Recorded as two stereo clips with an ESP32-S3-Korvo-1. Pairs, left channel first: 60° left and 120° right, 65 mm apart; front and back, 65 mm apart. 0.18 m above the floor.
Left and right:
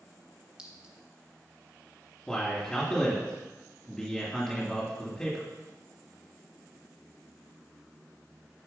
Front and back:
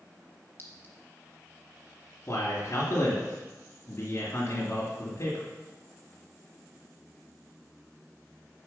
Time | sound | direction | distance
0.6 | a clink | 45° right | 1.5 m
2.3 | a man speaking | 20° right | 1.8 m